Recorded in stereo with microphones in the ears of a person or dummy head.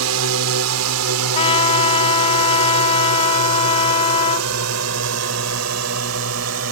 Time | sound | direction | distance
0.0 | a drone | 80° right | ?
1.3 | a trumpet | 25° left (ahead or behind) | ?